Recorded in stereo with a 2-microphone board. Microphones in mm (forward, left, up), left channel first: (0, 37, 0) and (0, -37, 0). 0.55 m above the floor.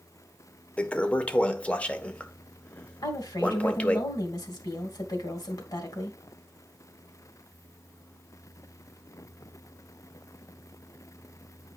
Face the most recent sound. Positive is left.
turn(degrees=65)  # may be behind; listen again after turning